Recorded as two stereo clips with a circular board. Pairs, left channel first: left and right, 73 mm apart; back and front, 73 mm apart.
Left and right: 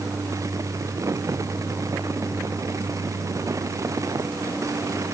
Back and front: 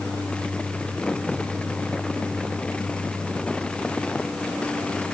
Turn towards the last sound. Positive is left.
No sound to turn to.